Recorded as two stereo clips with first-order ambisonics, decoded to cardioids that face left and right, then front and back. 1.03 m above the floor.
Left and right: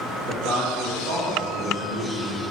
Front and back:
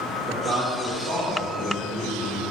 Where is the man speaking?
120° right, 2.0 m; by 2.4 s 80° right, 2.5 m.